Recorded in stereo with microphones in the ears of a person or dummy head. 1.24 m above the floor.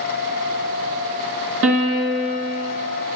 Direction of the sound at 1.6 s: 80° right.